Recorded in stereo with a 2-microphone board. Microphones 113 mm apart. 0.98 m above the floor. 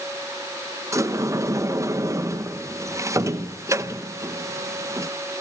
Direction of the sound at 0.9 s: 25° right (ahead or behind).